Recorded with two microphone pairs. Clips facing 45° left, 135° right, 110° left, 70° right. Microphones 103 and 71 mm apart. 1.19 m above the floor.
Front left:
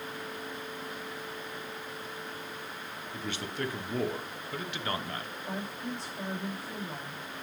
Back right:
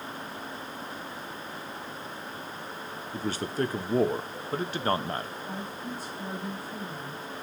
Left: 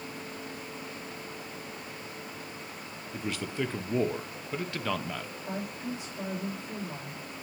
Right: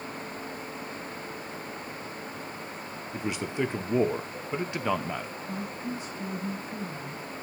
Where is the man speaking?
135° right, 0.8 m.